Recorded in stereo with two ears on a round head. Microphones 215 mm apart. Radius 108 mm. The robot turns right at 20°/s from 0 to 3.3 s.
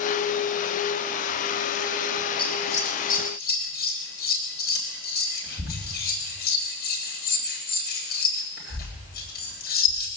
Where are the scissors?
20° left (ahead or behind), 4 m; by 10.1 s 40° left (ahead or behind), 4 m.